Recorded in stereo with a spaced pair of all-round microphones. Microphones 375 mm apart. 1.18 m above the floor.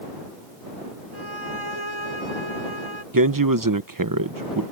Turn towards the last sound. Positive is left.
turn(degrees=-60)  # may be behind; listen again after turning